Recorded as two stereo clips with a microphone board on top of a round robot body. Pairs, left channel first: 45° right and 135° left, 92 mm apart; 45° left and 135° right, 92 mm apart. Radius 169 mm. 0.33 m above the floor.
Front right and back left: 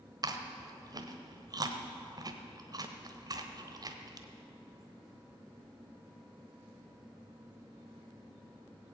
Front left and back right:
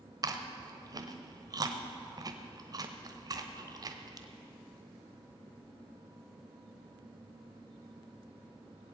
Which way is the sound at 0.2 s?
Straight behind.